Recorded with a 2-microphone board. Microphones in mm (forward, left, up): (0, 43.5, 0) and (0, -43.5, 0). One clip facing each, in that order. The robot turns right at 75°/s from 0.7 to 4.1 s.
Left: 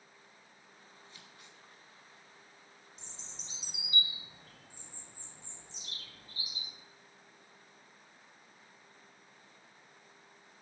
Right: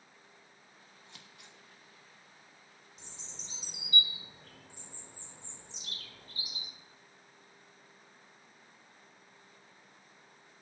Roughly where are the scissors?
Right.